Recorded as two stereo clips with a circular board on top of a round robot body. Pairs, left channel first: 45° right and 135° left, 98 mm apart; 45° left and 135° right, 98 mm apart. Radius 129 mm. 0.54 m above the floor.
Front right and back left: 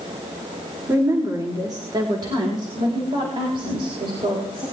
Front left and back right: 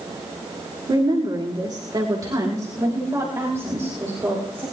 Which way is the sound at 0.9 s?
170° right.